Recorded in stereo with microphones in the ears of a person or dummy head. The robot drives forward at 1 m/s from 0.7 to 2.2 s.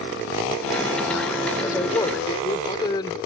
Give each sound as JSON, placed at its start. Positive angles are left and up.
{"t": 1.6, "sound": "a man speaking", "side_deg": 20}